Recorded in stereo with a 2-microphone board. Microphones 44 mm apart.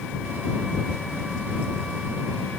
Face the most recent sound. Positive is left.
No sound to turn to.